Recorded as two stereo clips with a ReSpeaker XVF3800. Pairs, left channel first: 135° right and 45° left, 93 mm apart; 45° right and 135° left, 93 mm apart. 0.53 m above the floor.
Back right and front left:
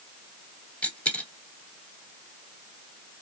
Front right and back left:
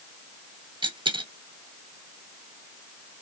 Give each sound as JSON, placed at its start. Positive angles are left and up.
{"t": 0.8, "sound": "a dropped coin", "azimuth_deg": 150, "distance_m": 0.9}